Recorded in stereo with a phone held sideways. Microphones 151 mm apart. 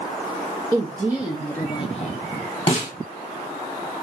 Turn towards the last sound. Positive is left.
turn(degrees=40)  # may be behind; listen again after turning